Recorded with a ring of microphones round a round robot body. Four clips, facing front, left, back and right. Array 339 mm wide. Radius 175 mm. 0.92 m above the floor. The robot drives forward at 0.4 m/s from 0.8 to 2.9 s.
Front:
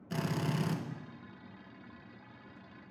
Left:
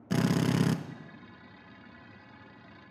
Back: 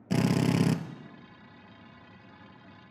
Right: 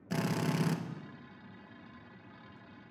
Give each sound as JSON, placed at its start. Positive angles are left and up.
{"t": 0.1, "sound": "a drill", "azimuth_deg": 150, "distance_m": 0.9}